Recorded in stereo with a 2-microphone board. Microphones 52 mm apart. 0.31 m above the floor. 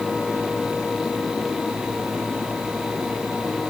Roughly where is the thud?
I don't hear a thud.